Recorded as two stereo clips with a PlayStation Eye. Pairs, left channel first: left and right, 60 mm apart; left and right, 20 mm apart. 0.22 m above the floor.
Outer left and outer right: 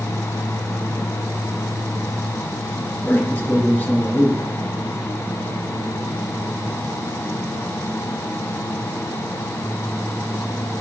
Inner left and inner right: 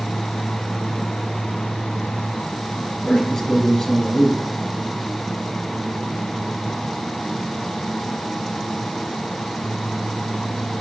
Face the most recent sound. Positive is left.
turn(degrees=30)  # may be behind; listen again after turning